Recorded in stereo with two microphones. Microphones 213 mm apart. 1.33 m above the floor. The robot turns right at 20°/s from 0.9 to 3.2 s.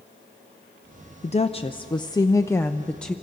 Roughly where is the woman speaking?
Behind left.